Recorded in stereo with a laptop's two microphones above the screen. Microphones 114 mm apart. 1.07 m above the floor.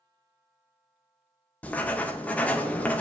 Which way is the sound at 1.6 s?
10° left (ahead or behind).